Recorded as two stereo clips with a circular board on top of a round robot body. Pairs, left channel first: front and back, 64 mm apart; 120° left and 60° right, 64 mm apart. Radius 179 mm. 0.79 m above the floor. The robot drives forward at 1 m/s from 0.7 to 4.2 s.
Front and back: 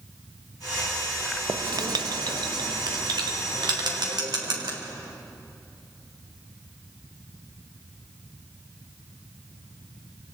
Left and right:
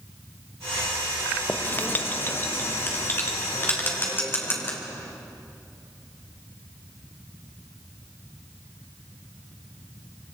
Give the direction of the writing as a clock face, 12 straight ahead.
6 o'clock.